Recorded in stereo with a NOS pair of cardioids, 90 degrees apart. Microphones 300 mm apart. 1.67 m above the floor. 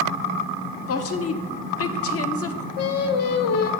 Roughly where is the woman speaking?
Ahead left.